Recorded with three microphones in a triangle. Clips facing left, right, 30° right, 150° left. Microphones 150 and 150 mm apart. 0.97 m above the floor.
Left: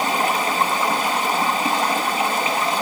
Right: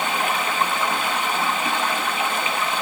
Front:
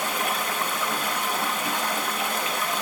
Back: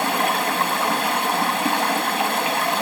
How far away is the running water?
About 1.3 m.